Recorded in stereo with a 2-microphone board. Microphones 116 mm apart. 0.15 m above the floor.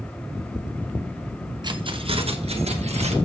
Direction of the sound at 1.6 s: 40° right (ahead or behind).